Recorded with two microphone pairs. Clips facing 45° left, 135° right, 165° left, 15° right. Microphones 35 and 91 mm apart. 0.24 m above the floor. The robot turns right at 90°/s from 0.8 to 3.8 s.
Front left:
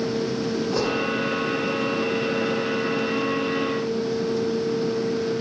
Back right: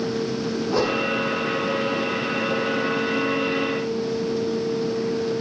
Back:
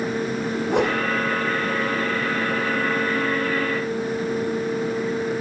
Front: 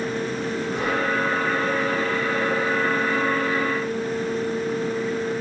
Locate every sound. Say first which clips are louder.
0.7 s a whoosh: back right 4 dB, back 5 dB; 145° left, 6 m; by 1.0 s 165° left, 6 m